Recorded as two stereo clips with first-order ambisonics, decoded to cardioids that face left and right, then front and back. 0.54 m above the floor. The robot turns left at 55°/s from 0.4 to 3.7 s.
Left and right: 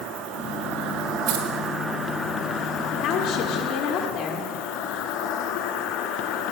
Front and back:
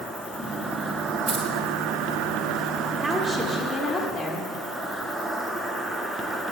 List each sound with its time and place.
0.0 s an insect: 90° right, 0.8 m; by 6.5 s 90° left, 0.8 m
1.3 s keys jangling: 100° right, 1.8 m; by 1.4 s 110° right, 1.8 m
3.0 s a woman speaking: 110° left, 1.0 m; by 4.5 s 75° left, 1.0 m